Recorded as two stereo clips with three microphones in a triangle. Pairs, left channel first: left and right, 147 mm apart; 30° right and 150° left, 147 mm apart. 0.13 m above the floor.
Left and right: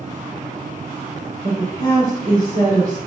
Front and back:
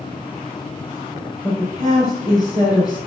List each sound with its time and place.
1.4 s a woman speaking: 85° right, 3 m